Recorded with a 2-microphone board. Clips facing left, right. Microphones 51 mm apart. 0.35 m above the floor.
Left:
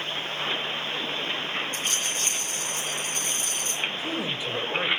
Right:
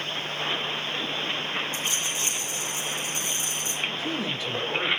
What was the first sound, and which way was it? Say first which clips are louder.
A rattle: even; 55° left (ahead or behind).